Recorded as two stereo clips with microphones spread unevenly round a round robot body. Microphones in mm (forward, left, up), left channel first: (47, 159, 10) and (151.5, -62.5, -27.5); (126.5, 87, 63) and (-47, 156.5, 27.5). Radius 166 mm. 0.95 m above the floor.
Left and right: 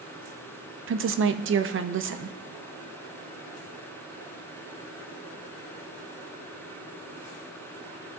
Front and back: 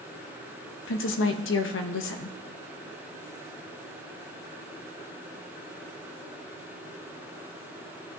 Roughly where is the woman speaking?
Ahead right.